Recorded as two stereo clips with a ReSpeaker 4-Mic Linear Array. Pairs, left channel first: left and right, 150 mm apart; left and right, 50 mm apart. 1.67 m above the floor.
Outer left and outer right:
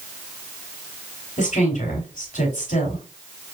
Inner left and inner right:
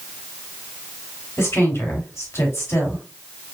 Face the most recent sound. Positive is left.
turn(degrees=60)  # may be behind; listen again after turning